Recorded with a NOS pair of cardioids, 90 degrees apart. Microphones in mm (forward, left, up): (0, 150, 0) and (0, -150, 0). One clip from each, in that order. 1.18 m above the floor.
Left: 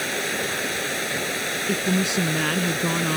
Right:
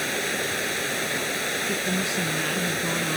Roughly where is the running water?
Ahead.